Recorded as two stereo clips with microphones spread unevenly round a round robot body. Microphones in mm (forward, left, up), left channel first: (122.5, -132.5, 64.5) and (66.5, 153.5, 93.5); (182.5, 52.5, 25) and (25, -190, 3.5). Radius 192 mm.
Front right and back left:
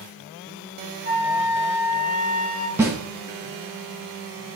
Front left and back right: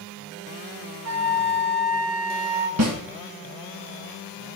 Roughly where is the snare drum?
Behind.